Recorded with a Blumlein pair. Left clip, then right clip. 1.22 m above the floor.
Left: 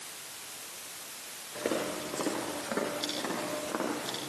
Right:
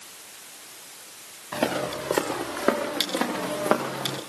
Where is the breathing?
No breathing in this recording.